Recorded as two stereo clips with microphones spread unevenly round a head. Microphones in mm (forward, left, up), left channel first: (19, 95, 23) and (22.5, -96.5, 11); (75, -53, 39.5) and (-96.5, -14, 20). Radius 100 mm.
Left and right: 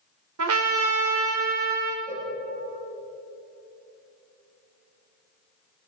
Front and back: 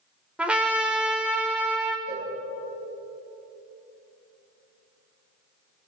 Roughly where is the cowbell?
Behind.